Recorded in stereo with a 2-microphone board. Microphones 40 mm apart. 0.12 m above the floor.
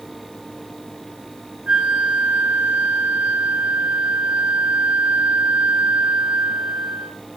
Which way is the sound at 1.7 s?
25° right (ahead or behind).